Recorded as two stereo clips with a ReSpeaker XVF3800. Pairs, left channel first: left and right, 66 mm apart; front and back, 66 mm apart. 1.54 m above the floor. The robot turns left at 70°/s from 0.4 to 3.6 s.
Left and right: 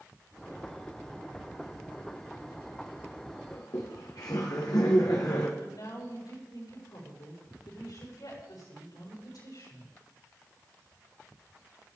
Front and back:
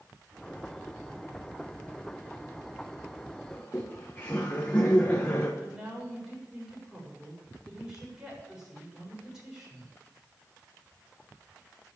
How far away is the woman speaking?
About 7.5 m.